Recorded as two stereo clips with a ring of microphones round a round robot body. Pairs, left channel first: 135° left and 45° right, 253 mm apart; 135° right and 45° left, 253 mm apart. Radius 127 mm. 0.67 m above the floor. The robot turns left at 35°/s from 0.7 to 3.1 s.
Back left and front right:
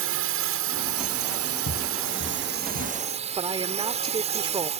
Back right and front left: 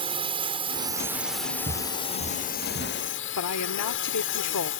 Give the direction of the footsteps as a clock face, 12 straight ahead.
8 o'clock.